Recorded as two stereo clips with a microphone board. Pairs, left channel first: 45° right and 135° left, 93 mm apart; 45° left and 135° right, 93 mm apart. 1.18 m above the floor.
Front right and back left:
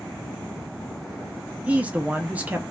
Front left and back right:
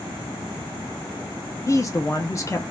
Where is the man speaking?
70° left, 0.5 m.